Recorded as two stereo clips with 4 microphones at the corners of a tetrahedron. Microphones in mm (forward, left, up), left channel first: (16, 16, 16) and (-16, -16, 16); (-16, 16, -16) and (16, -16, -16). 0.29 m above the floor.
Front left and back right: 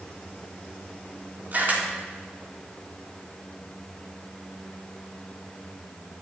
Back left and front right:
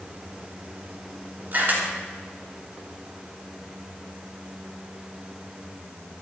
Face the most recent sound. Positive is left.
turn(degrees=-90)